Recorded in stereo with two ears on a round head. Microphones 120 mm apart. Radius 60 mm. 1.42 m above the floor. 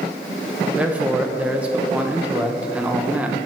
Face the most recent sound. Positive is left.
turn(degrees=-10)  # may be behind; listen again after turning